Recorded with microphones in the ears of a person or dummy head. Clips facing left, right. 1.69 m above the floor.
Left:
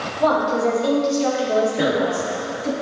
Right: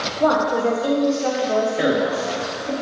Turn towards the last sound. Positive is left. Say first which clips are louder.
# even
turn(degrees=-10)  # may be behind; listen again after turning